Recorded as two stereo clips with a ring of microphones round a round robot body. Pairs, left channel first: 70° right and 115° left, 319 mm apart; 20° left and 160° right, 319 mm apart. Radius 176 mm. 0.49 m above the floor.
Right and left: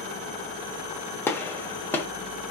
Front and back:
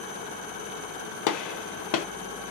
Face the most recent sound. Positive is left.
turn(degrees=15)